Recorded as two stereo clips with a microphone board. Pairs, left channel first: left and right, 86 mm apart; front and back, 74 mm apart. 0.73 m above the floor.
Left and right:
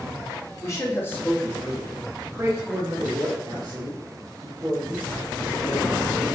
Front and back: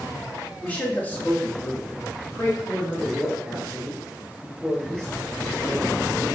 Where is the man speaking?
60° left, 1.0 m; by 5.9 s 85° right, 2 m.